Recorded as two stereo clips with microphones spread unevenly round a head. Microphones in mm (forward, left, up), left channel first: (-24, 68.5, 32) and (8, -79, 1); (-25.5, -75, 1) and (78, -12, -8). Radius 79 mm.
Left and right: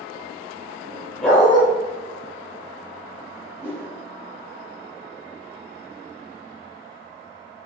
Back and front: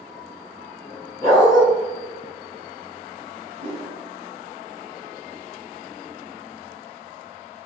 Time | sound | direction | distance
1.2 | a dog barking | 165° left | 1.2 m
3.6 | a whoosh | 10° left | 1.2 m